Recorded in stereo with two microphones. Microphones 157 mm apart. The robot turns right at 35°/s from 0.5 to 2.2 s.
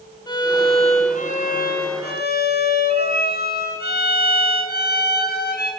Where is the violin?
25° left, 6.5 m; by 5.7 s 85° left, 6.5 m.